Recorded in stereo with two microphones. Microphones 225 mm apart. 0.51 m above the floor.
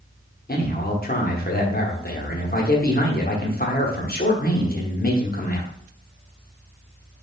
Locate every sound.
0.5 s a man speaking: 40° left (ahead or behind), 1.0 m